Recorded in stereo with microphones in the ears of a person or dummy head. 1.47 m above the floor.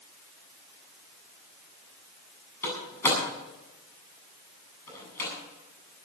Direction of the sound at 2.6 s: 20° left (ahead or behind).